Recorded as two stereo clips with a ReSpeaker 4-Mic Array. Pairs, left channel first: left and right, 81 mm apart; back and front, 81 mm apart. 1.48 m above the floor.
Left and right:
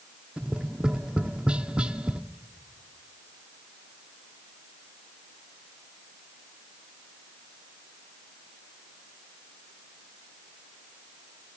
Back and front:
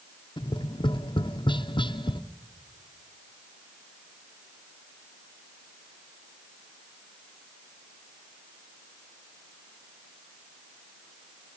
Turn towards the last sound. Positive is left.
turn(degrees=-165)